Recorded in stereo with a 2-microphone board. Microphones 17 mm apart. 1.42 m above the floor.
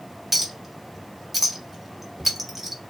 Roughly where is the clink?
Centre.